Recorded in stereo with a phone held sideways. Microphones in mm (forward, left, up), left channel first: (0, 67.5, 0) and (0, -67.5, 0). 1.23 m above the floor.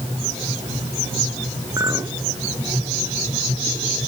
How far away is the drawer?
No drawer in this recording.